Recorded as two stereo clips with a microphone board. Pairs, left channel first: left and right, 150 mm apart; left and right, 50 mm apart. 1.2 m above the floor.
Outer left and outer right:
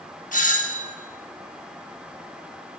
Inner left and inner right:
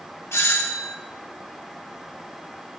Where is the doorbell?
60° left (ahead or behind), 1.4 m.